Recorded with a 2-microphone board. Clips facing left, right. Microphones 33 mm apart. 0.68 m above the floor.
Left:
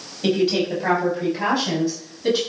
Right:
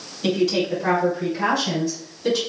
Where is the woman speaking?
30° left (ahead or behind), 5.5 m; by 2.4 s 15° left (ahead or behind), 6.5 m.